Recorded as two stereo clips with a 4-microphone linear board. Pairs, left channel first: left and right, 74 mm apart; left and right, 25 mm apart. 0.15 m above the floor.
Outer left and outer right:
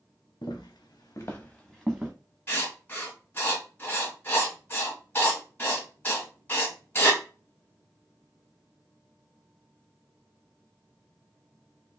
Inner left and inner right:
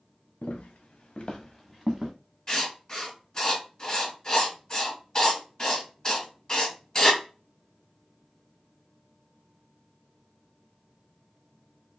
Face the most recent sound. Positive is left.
turn(degrees=20)  # may be behind; listen again after turning